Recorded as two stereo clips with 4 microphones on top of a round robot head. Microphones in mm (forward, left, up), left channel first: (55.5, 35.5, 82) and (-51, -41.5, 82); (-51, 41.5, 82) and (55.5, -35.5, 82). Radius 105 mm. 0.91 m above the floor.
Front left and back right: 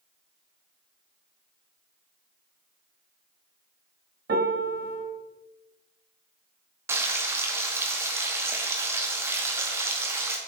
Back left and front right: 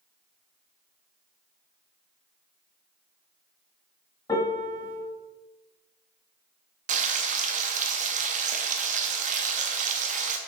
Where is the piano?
155° right, 1.8 m.